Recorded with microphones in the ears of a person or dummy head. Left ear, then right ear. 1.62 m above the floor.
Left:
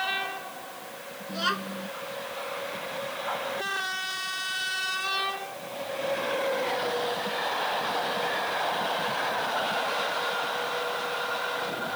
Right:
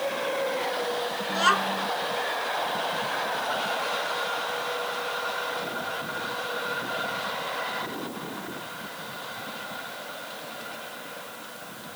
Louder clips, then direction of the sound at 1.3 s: Right 6 dB; 30° right (ahead or behind).